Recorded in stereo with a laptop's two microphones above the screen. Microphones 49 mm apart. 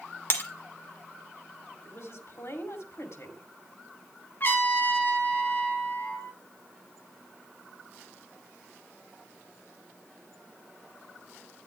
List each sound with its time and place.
0.3 s breaking glass: 50° left (ahead or behind), 1.7 m
1.9 s a woman speaking: 70° left (ahead or behind), 2.5 m
4.4 s a trumpet: 45° left (ahead or behind), 3 m